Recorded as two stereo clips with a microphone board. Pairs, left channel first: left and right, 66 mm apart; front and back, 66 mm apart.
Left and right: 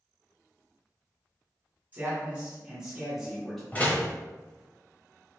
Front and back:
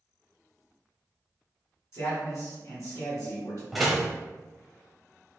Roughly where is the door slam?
Left.